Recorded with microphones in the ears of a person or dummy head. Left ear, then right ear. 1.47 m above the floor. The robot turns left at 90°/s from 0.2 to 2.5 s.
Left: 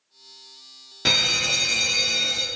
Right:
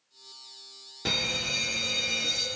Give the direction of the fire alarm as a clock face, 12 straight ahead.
8 o'clock.